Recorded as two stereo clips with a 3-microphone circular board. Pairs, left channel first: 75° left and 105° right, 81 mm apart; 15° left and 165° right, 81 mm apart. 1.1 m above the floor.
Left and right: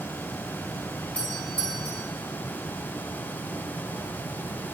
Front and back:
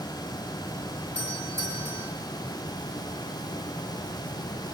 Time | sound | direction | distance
1.1 | a doorbell | 150° left | 4 m